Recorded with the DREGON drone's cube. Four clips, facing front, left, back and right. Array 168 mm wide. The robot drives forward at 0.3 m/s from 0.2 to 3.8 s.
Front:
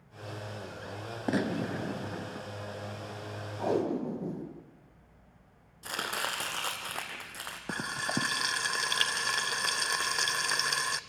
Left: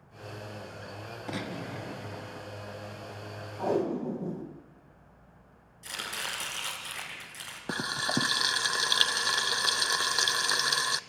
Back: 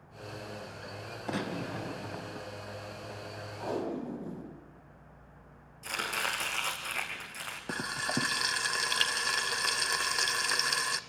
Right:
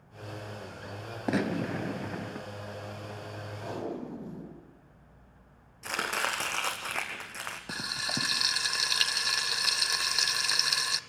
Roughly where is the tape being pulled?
Ahead left.